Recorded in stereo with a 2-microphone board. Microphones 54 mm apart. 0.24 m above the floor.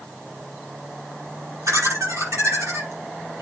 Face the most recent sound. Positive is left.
turn(degrees=-75)  # may be behind; listen again after turning